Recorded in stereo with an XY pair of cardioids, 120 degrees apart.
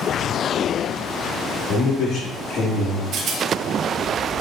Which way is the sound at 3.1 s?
65° right.